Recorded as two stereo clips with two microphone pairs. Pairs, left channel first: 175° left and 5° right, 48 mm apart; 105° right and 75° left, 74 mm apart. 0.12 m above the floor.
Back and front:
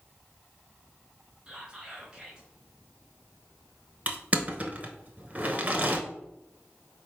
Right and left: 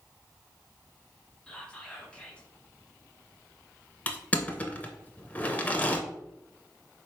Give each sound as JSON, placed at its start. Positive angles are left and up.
{"t": 1.5, "sound": "whispering", "azimuth_deg": -50, "distance_m": 1.3}
{"t": 4.1, "sound": "crushing", "azimuth_deg": -45, "distance_m": 0.7}